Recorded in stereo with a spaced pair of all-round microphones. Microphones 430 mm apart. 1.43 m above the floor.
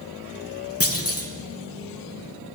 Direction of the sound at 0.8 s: 30° left (ahead or behind).